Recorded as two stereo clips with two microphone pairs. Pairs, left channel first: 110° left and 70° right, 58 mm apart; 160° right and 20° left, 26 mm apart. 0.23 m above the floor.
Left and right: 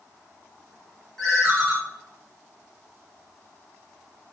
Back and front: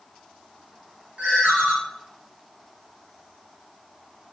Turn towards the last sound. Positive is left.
turn(degrees=30)